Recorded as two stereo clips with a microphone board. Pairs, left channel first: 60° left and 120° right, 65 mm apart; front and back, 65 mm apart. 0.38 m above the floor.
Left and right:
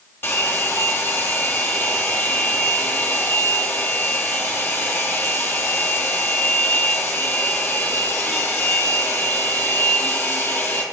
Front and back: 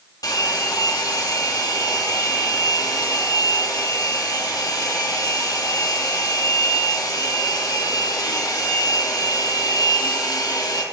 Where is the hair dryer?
Straight ahead, 2 m.